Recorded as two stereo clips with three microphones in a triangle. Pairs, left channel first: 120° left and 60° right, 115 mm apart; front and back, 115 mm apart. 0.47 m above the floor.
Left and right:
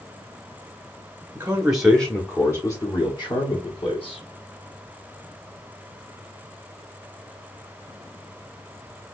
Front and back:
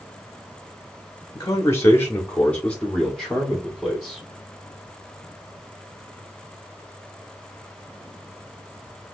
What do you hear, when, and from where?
1.4 s a man speaking: 15° right, 0.7 m; by 4.2 s 95° left, 1.5 m